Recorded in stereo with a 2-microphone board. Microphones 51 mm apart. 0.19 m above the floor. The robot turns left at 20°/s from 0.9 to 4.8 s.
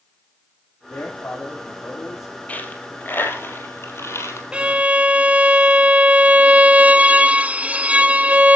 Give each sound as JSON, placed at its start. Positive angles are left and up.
{"t": 0.9, "sound": "a man speaking", "side_deg": 55, "distance_m": 8.5}
{"t": 2.5, "sound": "a dropped coin", "side_deg": 30, "distance_m": 3.0}
{"t": 4.5, "sound": "a violin", "side_deg": -25, "distance_m": 0.6}